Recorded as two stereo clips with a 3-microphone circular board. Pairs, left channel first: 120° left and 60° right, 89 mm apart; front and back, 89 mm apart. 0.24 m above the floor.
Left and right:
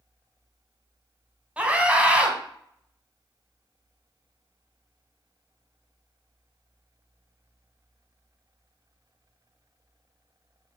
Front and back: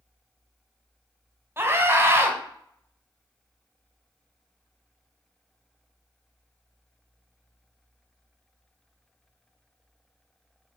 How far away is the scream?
About 1.4 m.